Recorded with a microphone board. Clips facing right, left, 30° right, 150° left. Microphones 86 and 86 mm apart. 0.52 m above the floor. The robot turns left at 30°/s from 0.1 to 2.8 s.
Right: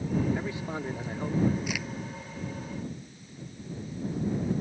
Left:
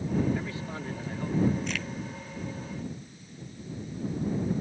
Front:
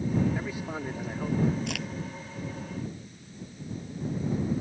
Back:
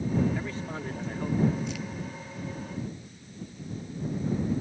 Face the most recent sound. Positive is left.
turn(degrees=-45)